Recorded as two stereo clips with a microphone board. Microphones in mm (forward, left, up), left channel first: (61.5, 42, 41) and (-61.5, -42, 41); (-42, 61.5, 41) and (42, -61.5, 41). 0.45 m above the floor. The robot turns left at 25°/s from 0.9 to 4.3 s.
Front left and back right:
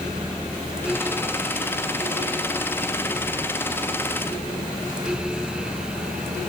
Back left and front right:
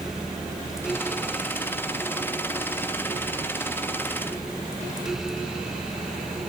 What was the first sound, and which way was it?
Only background noise.